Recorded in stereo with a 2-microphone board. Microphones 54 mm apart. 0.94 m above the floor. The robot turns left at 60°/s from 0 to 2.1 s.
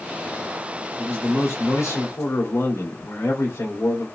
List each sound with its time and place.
1.0 s a man speaking: 165° left, 1.9 m; by 4.1 s 95° left, 1.9 m